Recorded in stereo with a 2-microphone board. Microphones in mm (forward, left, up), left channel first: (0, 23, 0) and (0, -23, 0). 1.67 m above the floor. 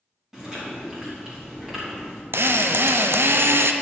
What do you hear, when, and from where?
0.3 s chewing: 15° right (ahead or behind), 3 m
2.3 s a drill: 65° right (ahead or behind), 0.6 m